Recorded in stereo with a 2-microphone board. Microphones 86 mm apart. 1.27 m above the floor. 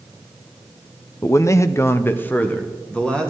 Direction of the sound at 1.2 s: 30° left (ahead or behind).